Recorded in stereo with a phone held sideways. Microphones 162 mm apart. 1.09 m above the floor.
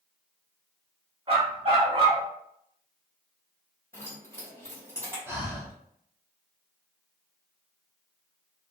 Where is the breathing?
15° right (ahead or behind), 0.7 m.